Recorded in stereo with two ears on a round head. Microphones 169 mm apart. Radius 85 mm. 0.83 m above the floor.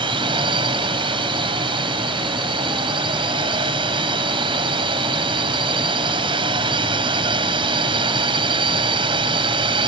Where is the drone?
25° right (ahead or behind).